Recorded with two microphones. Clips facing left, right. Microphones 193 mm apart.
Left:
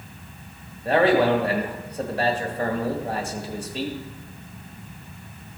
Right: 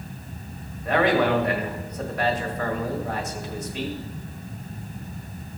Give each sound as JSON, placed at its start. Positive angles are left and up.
{"t": 0.8, "sound": "a man speaking", "side_deg": 30, "distance_m": 1.5}